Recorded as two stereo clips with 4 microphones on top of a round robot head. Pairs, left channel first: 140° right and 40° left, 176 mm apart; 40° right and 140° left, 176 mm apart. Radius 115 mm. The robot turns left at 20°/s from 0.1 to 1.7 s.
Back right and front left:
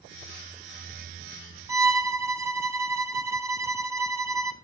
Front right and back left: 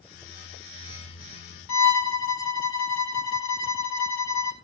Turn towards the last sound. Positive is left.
turn(degrees=-35)